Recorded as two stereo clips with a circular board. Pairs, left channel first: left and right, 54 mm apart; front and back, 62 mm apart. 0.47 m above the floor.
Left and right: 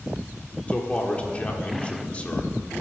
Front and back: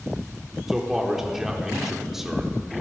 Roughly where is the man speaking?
Left.